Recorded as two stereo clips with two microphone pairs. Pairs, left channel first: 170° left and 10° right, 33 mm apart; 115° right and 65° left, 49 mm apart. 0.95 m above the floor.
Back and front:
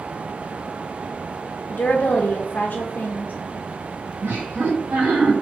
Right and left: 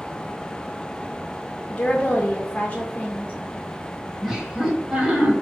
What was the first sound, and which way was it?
A woman speaking, 175° left.